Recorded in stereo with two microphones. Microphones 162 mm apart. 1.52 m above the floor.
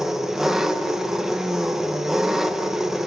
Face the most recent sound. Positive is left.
turn(degrees=0)  # may be behind; listen again after turning